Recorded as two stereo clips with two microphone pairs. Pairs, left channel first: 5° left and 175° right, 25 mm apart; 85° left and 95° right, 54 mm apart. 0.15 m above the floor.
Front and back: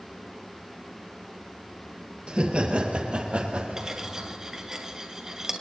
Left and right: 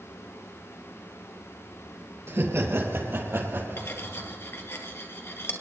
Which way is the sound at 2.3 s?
130° right.